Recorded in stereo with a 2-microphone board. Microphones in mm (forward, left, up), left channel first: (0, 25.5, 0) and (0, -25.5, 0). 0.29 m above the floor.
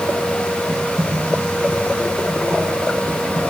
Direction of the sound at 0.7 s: 75° right (ahead or behind).